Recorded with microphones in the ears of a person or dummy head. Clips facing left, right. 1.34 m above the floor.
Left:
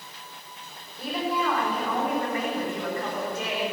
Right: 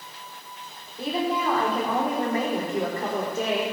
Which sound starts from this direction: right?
A woman speaking, at 1.0 s.